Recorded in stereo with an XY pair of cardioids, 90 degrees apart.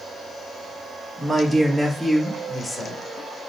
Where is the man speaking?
20° right, 1.0 m; by 3.0 s 15° left, 1.5 m.